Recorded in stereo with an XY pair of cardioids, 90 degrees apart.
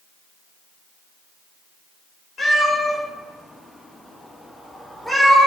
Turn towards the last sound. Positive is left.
turn(degrees=-5)